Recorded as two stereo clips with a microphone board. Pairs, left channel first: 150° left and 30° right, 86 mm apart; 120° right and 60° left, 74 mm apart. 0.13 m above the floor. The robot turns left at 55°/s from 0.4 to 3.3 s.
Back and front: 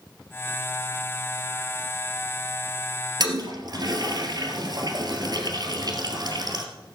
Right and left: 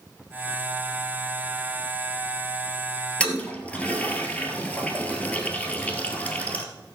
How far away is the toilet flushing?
About 1.8 m.